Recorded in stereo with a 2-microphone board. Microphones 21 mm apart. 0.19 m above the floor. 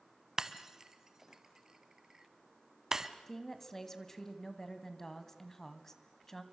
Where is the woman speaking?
20° left (ahead or behind), 1.4 m.